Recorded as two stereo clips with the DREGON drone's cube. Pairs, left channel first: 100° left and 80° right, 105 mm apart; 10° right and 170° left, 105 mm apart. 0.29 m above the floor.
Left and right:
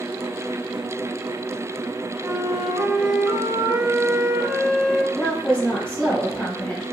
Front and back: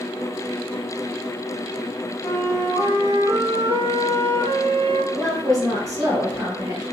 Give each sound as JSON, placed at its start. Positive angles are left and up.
{"t": 2.2, "sound": "a flute", "azimuth_deg": -15, "distance_m": 1.0}
{"t": 5.1, "sound": "a woman speaking", "azimuth_deg": 165, "distance_m": 1.2}